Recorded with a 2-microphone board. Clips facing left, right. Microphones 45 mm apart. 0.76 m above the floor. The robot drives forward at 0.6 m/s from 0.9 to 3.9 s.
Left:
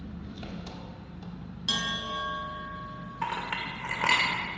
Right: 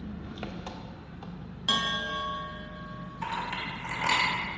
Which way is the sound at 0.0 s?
45° right (ahead or behind).